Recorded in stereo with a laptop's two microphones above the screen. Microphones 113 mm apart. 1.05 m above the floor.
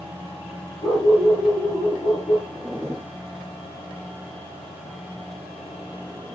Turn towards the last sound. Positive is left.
turn(degrees=10)  # may be behind; listen again after turning